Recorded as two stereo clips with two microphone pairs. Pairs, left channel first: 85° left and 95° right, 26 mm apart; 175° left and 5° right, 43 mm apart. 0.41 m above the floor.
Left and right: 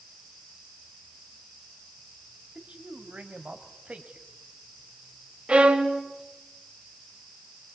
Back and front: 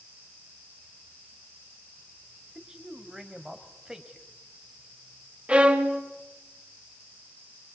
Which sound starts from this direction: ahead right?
A violin, at 5.5 s.